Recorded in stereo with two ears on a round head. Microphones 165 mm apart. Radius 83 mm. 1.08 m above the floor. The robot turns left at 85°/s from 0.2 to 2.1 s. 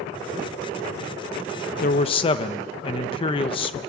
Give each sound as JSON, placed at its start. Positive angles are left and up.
{"t": 1.8, "sound": "a man speaking", "side_deg": 50, "distance_m": 1.0}